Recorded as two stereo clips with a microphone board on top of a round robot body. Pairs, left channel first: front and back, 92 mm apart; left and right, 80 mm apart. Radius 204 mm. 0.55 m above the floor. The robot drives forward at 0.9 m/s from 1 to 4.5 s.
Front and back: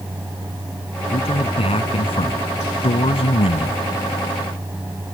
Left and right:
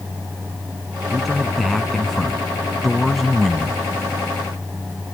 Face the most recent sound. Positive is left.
turn(degrees=0)